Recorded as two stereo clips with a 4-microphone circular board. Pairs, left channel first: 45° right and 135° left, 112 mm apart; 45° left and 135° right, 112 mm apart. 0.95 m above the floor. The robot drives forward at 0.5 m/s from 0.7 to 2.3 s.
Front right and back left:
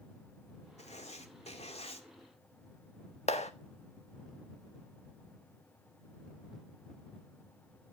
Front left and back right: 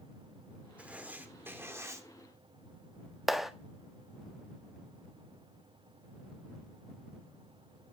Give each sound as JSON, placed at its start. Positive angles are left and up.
{"t": 0.8, "sound": "writing", "azimuth_deg": -55, "distance_m": 2.5}
{"t": 3.3, "sound": "a clap", "azimuth_deg": -45, "distance_m": 1.4}